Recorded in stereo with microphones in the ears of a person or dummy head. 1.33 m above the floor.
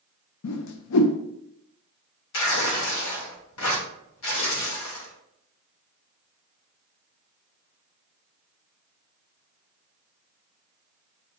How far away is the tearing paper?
About 1.2 m.